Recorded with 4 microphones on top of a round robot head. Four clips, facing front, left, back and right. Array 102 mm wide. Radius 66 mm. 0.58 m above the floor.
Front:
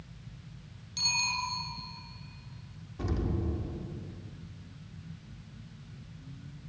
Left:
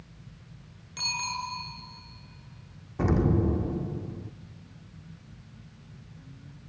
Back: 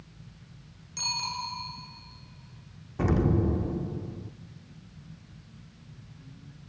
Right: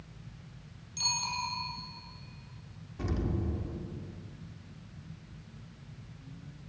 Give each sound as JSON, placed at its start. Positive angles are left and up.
{"t": 1.0, "sound": "a bicycle bell", "azimuth_deg": 115, "distance_m": 6.0}
{"t": 3.0, "sound": "an explosion", "azimuth_deg": 130, "distance_m": 0.5}